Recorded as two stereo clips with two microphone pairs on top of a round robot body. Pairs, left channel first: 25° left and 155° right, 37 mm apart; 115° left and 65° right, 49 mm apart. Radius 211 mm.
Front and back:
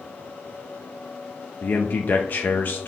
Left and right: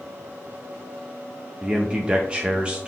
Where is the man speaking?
Straight ahead, 0.5 m.